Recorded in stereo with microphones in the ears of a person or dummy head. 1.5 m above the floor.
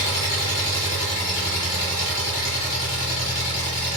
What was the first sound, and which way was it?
An engine running, 30° left (ahead or behind).